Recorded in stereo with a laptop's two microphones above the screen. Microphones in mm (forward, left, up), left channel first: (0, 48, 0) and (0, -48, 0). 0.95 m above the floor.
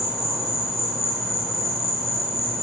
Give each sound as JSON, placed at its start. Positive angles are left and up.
{"t": 0.0, "sound": "an insect", "side_deg": 0, "distance_m": 1.6}